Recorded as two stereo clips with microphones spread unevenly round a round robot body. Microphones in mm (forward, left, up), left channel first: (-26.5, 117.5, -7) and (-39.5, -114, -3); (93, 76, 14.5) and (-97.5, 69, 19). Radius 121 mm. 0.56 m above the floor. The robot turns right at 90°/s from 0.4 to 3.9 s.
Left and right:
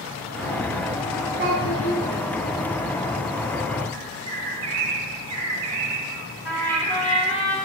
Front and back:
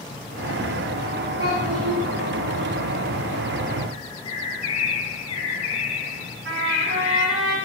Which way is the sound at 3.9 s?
65° right.